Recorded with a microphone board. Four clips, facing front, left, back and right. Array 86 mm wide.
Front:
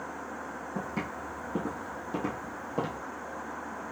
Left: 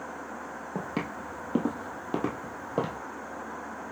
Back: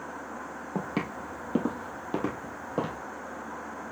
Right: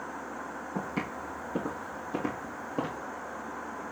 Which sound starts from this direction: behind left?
Footsteps, at 0.8 s.